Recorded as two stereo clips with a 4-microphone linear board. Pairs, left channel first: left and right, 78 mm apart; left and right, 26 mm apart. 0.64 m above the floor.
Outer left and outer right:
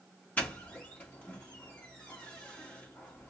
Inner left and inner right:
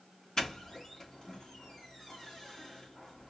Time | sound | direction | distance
0.4 | a doorbell | 20° left (ahead or behind) | 2.5 m